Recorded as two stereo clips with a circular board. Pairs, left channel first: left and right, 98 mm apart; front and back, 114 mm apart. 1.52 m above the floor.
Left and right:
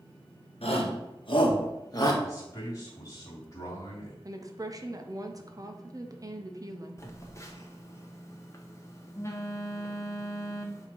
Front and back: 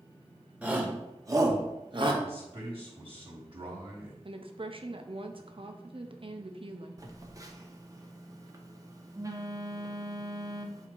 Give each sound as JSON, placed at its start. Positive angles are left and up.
{"t": 0.6, "sound": "a shout", "azimuth_deg": 100, "distance_m": 1.4}
{"t": 2.2, "sound": "a man speaking", "azimuth_deg": 145, "distance_m": 2.5}
{"t": 4.2, "sound": "a woman speaking", "azimuth_deg": -145, "distance_m": 0.8}
{"t": 7.0, "sound": "a phone buzzing", "azimuth_deg": 135, "distance_m": 0.8}